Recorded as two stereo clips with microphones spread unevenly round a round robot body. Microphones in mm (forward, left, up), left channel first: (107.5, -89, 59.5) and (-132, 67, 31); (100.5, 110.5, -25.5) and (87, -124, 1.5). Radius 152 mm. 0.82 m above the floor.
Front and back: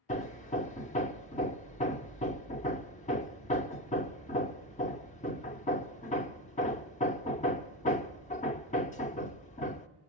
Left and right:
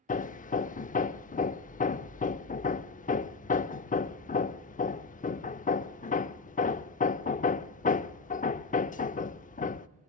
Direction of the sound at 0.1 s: 25° left.